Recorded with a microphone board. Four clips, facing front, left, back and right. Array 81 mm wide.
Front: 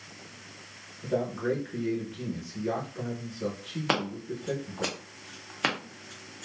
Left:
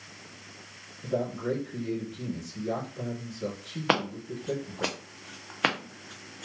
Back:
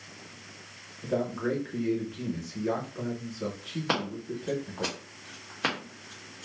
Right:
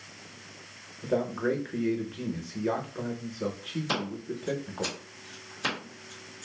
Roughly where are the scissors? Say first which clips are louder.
Left 7 dB, front 1 dB; left.